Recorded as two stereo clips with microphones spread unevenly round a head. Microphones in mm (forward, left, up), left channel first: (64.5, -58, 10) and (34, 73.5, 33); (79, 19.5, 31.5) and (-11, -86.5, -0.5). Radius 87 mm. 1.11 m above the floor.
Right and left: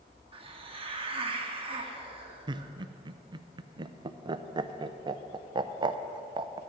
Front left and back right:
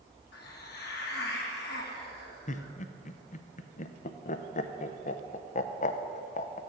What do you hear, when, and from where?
0.3 s a hiss: 55° left, 1.5 m
2.5 s laughter: 50° left, 0.6 m